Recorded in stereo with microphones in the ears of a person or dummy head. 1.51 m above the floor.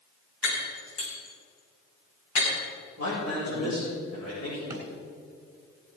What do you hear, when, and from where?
0.4 s breaking glass: 80° left, 6 m
3.0 s a man speaking: 85° left, 6 m
4.7 s a drawer: 15° right (ahead or behind), 3.5 m